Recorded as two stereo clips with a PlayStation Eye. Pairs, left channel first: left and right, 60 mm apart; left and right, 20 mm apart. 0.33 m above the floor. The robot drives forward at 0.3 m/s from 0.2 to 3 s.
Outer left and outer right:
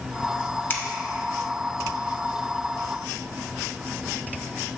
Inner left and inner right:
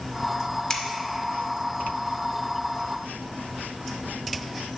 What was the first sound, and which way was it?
Scissors, 35° left (ahead or behind).